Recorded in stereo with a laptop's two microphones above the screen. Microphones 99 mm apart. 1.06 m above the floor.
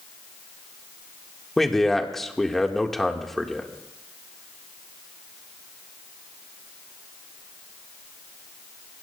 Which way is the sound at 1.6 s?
5° left (ahead or behind).